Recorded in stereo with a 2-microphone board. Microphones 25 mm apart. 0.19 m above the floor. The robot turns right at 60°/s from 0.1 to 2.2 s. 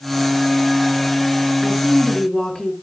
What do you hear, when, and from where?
1.6 s a woman speaking: 10° right, 2.5 m; by 2.7 s 25° left, 2.5 m